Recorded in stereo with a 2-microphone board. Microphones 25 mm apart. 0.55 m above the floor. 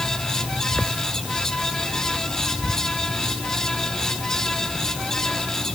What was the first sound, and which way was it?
Only background noise.